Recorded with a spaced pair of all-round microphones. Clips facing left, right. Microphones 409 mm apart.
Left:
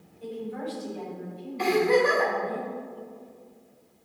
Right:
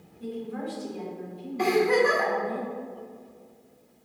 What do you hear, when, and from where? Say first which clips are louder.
0.2 s a woman speaking: even; 60° right (ahead or behind), 1.8 m; by 2.6 s 65° right (ahead or behind), 4 m
1.6 s a giggle: even; 60° right (ahead or behind), 2.5 m